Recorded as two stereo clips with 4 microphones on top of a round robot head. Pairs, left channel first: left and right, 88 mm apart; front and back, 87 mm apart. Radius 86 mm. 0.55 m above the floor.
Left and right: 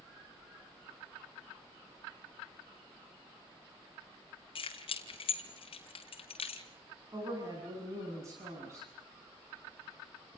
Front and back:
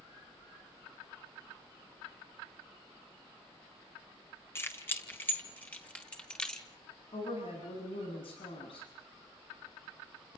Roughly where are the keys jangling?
Ahead left.